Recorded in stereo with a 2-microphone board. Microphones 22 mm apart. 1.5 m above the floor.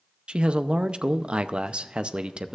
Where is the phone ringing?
I don't hear a phone ringing.